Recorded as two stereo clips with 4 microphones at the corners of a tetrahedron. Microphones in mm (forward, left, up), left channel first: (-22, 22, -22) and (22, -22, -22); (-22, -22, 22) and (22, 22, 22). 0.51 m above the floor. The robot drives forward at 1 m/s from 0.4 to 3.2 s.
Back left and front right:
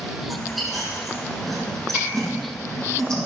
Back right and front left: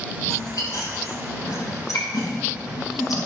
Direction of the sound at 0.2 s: 135° right.